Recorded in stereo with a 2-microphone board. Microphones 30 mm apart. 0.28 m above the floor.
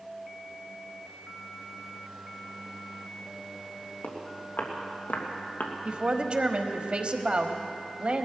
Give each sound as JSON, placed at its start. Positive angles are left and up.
{"t": 4.0, "sound": "footsteps", "side_deg": 75, "distance_m": 3.5}
{"t": 5.8, "sound": "a woman speaking", "side_deg": -35, "distance_m": 1.2}